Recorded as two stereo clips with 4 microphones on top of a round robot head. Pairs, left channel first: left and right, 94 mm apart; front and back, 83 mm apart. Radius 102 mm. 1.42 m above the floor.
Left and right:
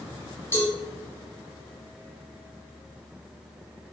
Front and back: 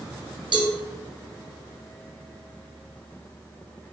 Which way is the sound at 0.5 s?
160° left.